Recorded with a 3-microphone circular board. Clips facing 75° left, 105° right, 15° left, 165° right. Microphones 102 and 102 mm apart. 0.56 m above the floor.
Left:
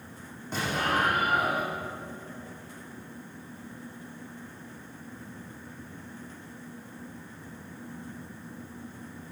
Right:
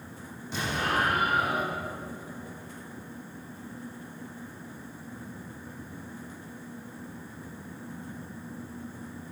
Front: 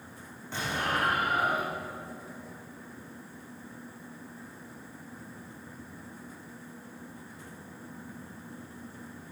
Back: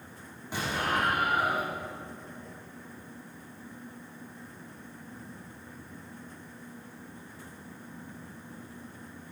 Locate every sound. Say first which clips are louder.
0.5 s an explosion: left 1 dB, back 1 dB; 120° left, 6 m